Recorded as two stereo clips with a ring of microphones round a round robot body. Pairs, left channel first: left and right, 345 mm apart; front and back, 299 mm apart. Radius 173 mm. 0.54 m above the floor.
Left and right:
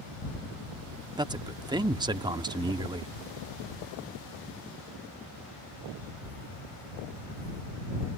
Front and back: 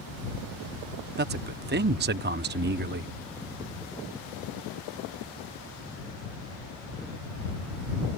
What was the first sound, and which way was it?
A man speaking, 160° right.